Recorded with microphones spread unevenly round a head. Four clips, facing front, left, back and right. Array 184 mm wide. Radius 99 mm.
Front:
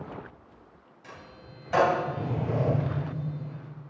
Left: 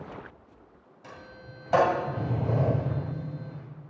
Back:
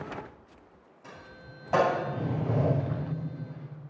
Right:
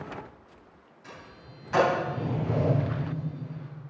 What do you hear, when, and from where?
1.0 s a sliding door: 125° left, 6.5 m